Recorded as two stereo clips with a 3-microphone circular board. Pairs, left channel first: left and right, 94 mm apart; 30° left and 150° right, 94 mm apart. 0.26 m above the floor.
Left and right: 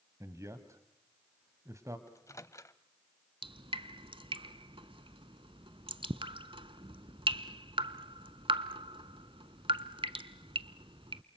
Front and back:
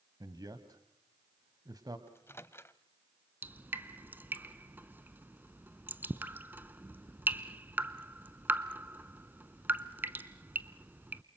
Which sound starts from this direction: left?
A microwave, at 2.1 s.